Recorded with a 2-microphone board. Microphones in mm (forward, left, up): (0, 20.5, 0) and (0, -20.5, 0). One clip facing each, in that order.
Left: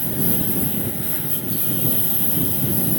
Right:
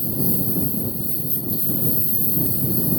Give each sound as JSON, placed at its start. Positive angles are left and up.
{"t": 0.0, "sound": "a lawn mower", "side_deg": 70}